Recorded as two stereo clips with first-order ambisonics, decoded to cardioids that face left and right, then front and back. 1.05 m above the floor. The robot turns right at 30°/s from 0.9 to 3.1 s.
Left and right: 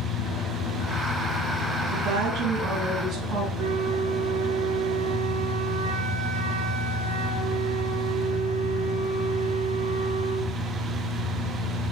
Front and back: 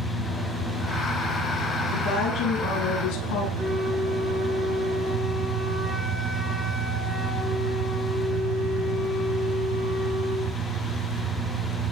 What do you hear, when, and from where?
0.0 s an engine running: 100° left, 6.5 m; by 11.9 s 170° left, 6.5 m
1.9 s a woman speaking: 65° right, 9 m; by 3.5 s 30° right, 9 m
3.6 s a flute: 80° right, 4.5 m